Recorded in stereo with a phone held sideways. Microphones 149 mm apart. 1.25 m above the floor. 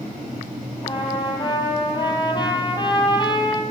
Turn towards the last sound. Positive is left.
turn(degrees=30)  # may be behind; listen again after turning